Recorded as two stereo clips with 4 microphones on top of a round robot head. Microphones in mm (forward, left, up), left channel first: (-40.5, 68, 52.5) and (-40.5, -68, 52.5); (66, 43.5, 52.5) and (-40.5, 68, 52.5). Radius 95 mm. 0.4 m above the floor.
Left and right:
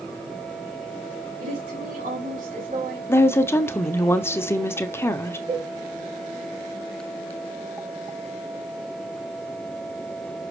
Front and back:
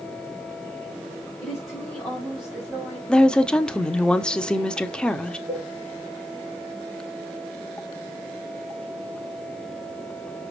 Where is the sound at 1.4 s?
100° right, 4 m; by 3.0 s 110° right, 4.5 m.